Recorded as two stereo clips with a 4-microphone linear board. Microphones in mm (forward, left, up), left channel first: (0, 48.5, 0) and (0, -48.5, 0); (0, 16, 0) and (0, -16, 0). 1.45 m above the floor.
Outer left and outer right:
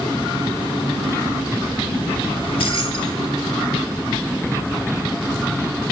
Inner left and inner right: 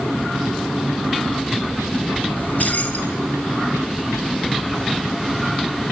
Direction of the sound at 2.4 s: 75° left (ahead or behind).